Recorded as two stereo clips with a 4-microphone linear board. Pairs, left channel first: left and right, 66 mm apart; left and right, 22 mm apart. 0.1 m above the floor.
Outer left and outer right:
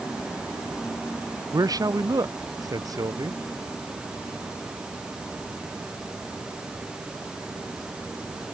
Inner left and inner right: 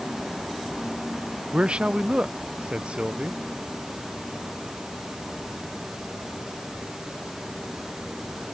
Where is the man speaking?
60° right (ahead or behind).